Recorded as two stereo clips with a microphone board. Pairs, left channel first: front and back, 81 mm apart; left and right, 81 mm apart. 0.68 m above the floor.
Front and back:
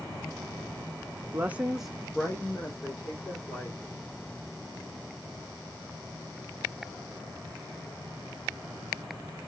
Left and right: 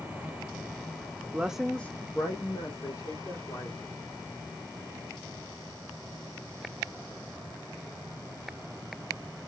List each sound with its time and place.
1.3 s a woman speaking: 145° right, 0.6 m; by 3.8 s 60° left, 1.8 m